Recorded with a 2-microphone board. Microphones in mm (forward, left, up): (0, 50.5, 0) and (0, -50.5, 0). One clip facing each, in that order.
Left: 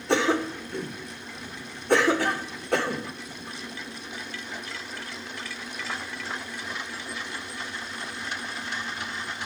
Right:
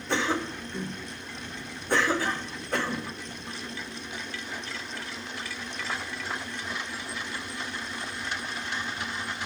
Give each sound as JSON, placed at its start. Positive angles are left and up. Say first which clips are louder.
{"t": 0.1, "sound": "a cough", "louder": "left 5 dB", "side_deg": 70, "distance_m": 1.5}